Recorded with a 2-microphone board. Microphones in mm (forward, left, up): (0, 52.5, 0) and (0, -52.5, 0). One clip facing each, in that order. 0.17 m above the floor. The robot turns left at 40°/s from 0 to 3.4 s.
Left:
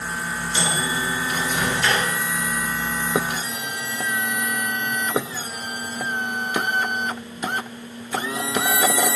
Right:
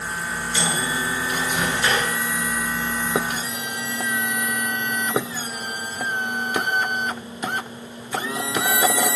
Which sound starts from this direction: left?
A microwave, at 0.6 s.